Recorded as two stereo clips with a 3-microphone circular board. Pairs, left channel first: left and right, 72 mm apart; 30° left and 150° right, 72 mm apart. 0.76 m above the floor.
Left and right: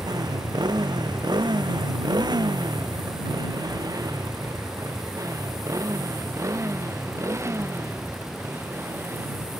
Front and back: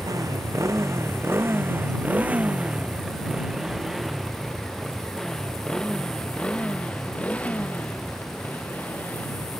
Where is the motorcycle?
110° right; by 9.6 s 35° right.